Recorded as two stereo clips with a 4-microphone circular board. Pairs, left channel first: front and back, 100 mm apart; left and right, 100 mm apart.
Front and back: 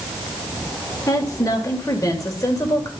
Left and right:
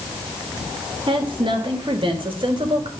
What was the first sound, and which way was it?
A woman speaking, 55° right.